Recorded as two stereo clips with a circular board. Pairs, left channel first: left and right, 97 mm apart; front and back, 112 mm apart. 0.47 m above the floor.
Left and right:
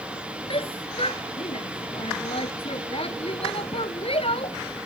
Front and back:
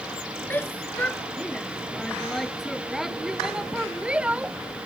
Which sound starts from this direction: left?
A shout, at 0.5 s.